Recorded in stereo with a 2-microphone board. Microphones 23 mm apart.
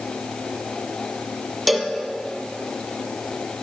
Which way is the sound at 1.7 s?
Centre (ahead or behind).